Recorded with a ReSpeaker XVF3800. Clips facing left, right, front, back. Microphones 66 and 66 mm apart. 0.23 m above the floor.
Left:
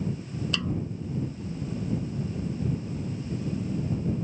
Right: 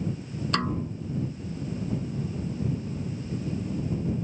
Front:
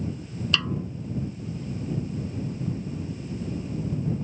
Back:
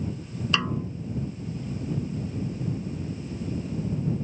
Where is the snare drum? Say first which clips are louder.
Right 4 dB, back 1 dB; 115° right.